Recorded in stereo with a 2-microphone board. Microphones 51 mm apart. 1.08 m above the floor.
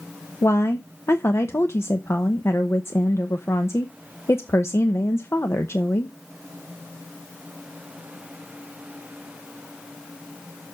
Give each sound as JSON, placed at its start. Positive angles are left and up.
{"t": 0.4, "sound": "a woman speaking", "side_deg": 60, "distance_m": 0.8}